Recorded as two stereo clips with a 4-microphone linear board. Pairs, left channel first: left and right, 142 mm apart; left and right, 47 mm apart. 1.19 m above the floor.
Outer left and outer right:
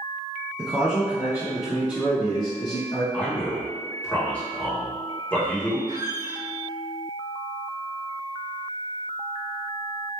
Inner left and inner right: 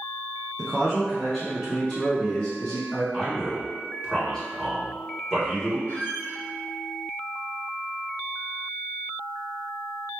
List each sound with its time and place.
0.6 s a man speaking: 5° right (ahead or behind), 0.6 m; by 3.0 s 40° left (ahead or behind), 1.6 m
3.1 s a man speaking: 10° left (ahead or behind), 1.5 m
5.9 s a squeak: 65° left (ahead or behind), 1.2 m